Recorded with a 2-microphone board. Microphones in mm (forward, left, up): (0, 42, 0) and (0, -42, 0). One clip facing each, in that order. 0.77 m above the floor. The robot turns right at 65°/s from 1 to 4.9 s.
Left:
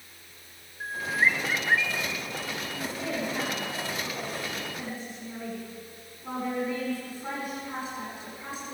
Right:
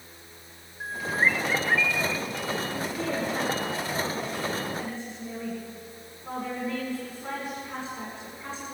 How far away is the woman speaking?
About 8.5 m.